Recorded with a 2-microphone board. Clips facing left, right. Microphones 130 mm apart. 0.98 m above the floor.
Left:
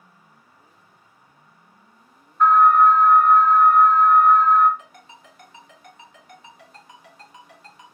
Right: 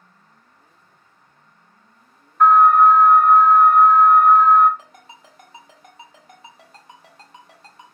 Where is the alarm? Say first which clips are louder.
Right 2 dB; 65° right (ahead or behind), 0.8 m.